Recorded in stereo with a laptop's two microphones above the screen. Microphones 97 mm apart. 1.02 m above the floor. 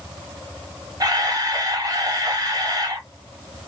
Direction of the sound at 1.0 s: 40° right (ahead or behind).